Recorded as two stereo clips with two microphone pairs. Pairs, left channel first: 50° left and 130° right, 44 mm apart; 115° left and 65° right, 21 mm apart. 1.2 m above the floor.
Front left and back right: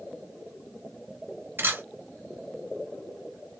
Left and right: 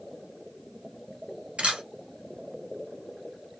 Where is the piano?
I don't hear a piano.